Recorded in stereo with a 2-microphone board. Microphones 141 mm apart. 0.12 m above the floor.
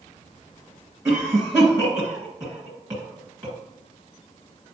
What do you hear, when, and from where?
1.1 s a cough: 20° right (ahead or behind), 1.7 m